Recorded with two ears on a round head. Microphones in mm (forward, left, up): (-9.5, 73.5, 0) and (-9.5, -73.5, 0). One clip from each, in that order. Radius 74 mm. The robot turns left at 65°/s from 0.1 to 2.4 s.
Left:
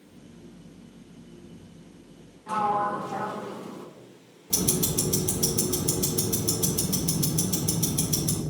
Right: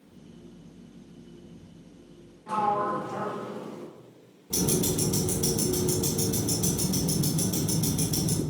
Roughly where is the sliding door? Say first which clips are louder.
Left 1 dB; centre.